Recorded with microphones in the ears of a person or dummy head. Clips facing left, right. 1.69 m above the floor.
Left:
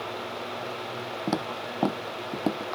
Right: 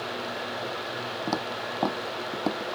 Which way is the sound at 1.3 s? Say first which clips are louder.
Left 2 dB; 5° left (ahead or behind).